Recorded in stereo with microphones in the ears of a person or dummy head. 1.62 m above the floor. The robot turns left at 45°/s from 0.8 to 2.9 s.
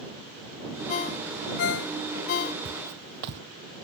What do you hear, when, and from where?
0.9 s a ringtone: 35° left (ahead or behind); by 2.5 s 40° left (ahead or behind)
2.6 s footsteps: 55° right (ahead or behind); by 3.4 s 60° right (ahead or behind)